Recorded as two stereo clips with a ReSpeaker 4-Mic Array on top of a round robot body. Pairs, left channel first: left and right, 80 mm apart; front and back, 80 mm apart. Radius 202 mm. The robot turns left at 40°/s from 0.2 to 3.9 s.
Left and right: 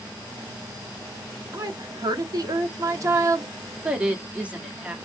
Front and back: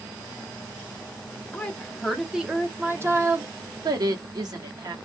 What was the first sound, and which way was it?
A woman speaking, 65° right.